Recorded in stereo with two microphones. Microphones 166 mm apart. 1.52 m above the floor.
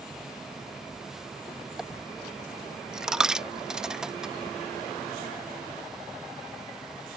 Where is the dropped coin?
5° right (ahead or behind).